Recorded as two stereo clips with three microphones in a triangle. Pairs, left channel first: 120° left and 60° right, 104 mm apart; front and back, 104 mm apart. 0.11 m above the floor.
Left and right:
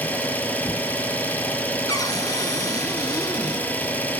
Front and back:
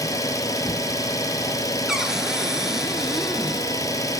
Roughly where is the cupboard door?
Left.